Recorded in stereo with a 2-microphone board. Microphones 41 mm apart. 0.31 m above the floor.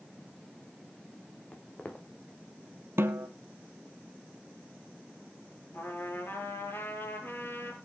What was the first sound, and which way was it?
Footsteps, 30° left (ahead or behind).